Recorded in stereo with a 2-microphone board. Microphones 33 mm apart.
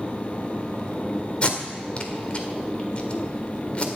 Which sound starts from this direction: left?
Tape being pulled, at 1.4 s.